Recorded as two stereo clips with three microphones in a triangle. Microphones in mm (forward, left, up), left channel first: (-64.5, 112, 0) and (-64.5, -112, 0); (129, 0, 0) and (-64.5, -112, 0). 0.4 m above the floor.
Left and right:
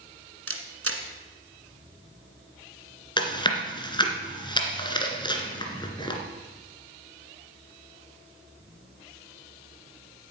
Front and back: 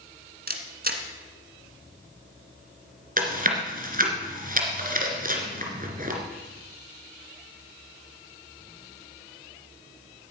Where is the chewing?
160° left, 2 m.